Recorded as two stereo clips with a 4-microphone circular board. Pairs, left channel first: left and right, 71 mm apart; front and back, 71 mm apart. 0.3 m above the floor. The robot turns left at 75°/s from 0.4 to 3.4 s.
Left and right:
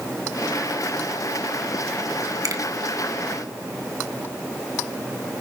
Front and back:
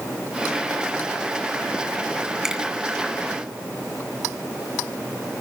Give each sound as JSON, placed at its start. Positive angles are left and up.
{"t": 2.4, "sound": "a finger snap", "azimuth_deg": -100, "distance_m": 2.5}